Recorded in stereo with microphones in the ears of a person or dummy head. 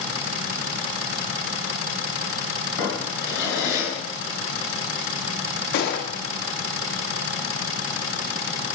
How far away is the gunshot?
About 1.4 m.